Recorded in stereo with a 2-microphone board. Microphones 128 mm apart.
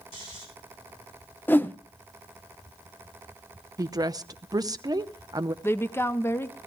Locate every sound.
0.1 s snoring: 40° left (ahead or behind), 4.5 m
1.5 s a whoosh: 15° left (ahead or behind), 0.5 m
3.8 s a woman speaking: 30° right (ahead or behind), 0.8 m
5.6 s a woman speaking: 20° left (ahead or behind), 0.6 m